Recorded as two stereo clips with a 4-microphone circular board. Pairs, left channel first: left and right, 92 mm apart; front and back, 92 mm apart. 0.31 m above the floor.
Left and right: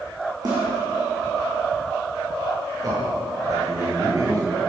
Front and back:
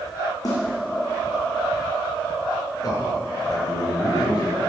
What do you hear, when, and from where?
0.5 s a snare drum: 50° right, 6 m
2.8 s a man speaking: 45° right, 5.5 m